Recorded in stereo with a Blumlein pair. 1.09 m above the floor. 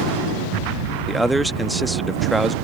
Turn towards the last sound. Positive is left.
turn(degrees=-5)